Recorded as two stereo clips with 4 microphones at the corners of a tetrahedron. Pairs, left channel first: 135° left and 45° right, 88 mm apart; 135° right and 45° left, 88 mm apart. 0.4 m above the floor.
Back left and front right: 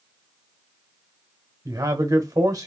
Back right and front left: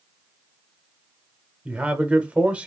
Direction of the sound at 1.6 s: 25° right.